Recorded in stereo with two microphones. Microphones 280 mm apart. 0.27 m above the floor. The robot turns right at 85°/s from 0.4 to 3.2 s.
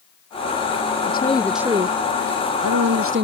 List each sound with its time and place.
1.1 s a woman speaking: 140° left; by 3.2 s 40° right